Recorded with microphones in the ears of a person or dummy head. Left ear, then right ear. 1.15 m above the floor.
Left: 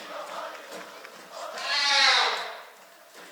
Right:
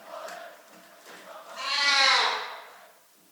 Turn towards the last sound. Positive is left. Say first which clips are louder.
# even
turn(degrees=35)  # may be behind; listen again after turning